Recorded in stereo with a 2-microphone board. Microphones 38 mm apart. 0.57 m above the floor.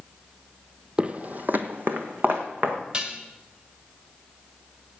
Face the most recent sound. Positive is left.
turn(degrees=-25)  # may be behind; listen again after turning